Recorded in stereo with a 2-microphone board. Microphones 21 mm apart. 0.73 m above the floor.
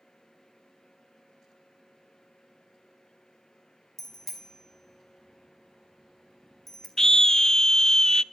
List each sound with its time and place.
4.0 s a bicycle bell: 15° left (ahead or behind), 4 m
7.0 s a scream: 25° left (ahead or behind), 0.7 m